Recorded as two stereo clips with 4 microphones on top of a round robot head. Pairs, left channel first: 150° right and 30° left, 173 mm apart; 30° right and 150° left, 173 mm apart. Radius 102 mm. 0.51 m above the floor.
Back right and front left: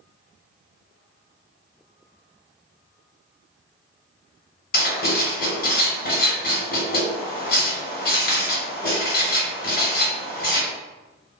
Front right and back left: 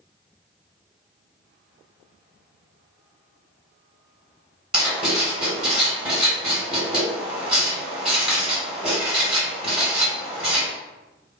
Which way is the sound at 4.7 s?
130° right.